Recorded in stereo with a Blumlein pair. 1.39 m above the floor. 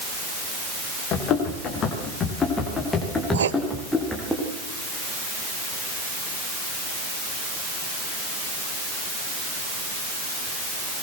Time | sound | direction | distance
1.1 | running footsteps | 30° left | 8 m
3.3 | writing | 65° right | 1.4 m